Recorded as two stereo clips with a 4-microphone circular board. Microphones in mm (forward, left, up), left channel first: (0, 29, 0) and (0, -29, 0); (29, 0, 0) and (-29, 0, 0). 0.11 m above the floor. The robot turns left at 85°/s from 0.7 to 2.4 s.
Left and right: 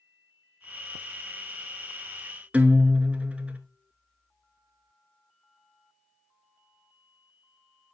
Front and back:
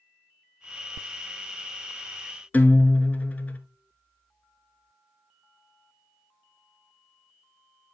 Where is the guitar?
40° right, 0.9 m.